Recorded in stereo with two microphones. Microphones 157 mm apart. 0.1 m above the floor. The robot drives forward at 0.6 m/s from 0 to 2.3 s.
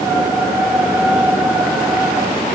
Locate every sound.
Only background noise.